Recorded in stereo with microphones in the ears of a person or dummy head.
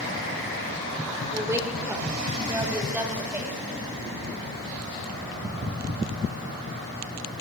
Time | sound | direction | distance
1.3 | a woman speaking | 20° right (ahead or behind) | 5.5 m